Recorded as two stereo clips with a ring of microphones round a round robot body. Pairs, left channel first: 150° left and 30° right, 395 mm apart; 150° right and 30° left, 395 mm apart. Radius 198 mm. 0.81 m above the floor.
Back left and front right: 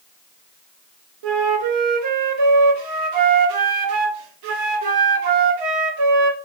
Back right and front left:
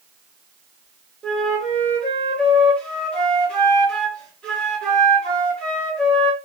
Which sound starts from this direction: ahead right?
A flute, at 1.2 s.